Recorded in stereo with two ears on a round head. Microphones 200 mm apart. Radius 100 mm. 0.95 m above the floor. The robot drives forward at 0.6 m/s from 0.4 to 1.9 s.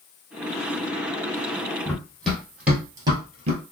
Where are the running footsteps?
10° left (ahead or behind), 1.7 m; by 3.6 s 35° right (ahead or behind), 1.2 m.